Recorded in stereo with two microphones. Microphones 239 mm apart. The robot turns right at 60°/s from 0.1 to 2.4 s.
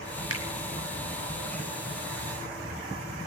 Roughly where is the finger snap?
Right.